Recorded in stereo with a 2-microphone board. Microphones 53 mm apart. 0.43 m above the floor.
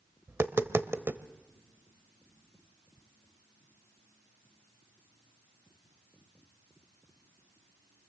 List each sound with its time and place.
0.3 s tapping: 50° right (ahead or behind), 0.7 m